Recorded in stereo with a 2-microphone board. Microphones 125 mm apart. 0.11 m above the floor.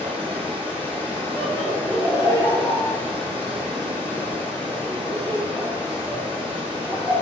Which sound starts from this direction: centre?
Laughter, at 1.4 s.